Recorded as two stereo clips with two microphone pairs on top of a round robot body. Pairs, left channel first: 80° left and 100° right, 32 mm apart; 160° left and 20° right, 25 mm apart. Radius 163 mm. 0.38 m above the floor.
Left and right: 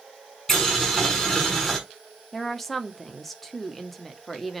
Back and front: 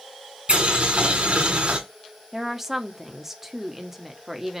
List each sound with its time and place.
0.5 s boiling: 5° left, 4.5 m
2.3 s a woman speaking: 15° left, 1.5 m